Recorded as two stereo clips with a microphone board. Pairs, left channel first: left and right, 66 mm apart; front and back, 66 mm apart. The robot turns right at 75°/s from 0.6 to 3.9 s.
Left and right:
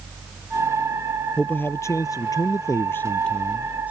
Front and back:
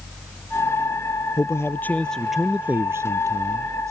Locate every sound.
1.4 s a man speaking: 20° left; by 3.9 s 150° right